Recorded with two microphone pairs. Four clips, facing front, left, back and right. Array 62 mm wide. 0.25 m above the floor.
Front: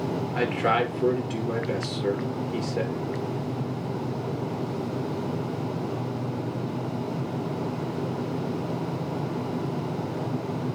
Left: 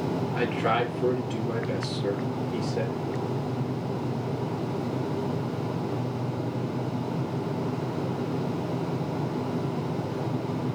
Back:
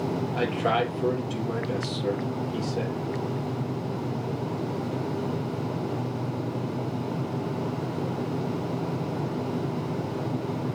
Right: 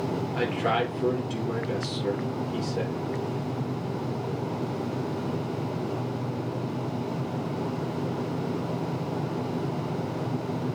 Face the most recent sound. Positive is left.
turn(degrees=15)